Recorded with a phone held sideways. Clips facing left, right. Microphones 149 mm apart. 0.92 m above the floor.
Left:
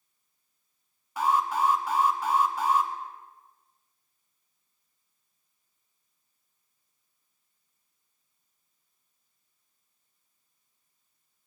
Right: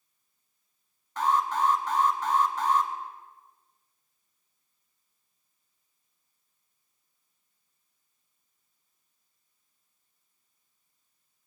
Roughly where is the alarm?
Centre.